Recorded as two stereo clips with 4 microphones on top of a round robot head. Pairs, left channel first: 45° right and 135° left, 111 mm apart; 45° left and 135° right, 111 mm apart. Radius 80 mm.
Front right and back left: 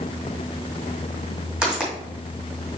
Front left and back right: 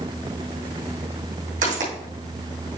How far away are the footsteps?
About 3 m.